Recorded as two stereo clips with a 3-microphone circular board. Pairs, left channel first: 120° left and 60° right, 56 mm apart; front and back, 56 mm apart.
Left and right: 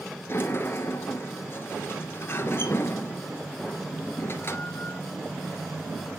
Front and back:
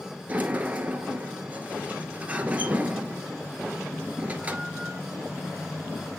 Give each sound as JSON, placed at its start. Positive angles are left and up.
{"t": 0.3, "sound": "a sliding door", "azimuth_deg": 130, "distance_m": 1.4}